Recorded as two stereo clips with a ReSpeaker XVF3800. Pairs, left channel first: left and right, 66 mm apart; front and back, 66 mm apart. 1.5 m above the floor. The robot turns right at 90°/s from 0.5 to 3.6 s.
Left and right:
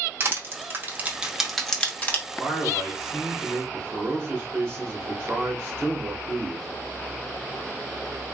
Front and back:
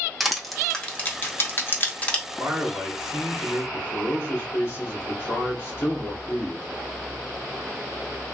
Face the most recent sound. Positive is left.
turn(degrees=-45)